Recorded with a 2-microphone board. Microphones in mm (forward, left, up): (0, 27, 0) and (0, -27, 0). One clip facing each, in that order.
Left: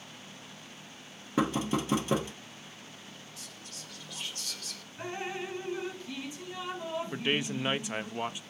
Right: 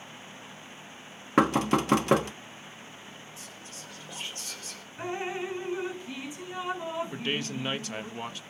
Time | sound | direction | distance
1.4 | knocking | 65° right (ahead or behind) | 1.0 m
3.4 | whispering | 20° right (ahead or behind) | 3.5 m
5.0 | dripping | 20° right (ahead or behind) | 4 m
7.1 | a man speaking | 15° left (ahead or behind) | 0.8 m